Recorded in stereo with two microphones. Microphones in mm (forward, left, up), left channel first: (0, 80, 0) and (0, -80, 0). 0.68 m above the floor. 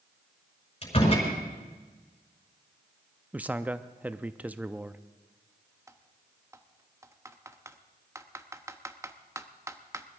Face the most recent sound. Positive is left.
turn(degrees=-20)  # may be behind; listen again after turning